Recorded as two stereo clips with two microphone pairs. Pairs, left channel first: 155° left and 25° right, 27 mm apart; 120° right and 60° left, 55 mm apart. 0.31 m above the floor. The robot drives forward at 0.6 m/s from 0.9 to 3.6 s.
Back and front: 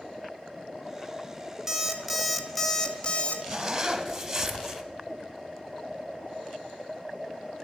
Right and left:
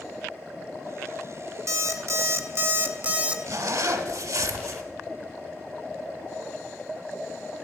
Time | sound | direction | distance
1.7 | an alarm clock | 45° left | 1.0 m
3.5 | a zipper | 50° left | 1.0 m